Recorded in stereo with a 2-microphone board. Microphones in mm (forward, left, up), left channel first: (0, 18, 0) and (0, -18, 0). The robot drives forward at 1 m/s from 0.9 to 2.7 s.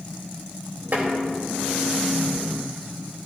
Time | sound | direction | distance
0.9 | tapping | 65° right (ahead or behind) | 2 m